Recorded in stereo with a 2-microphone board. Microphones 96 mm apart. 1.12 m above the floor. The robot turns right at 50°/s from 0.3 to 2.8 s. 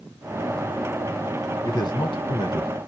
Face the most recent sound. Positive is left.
turn(degrees=115)